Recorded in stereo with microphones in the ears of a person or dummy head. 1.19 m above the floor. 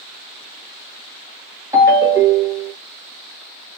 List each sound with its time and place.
1.7 s a ringtone: 15° right (ahead or behind), 1.4 m